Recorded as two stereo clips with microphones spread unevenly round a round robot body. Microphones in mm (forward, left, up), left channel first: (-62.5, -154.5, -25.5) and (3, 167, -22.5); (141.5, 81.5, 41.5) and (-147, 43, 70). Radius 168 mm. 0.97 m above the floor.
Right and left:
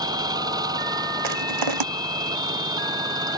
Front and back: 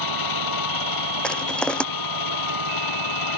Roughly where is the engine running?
Ahead.